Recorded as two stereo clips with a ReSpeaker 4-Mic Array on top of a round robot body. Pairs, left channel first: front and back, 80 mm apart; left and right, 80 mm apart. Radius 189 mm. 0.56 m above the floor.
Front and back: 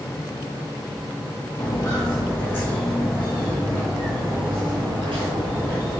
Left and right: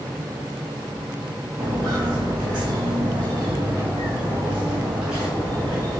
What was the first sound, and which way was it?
Footsteps, 45° right.